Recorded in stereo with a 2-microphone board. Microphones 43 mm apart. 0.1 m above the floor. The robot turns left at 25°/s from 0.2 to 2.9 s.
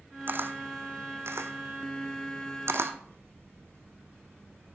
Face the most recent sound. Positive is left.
turn(degrees=-60)  # may be behind; listen again after turning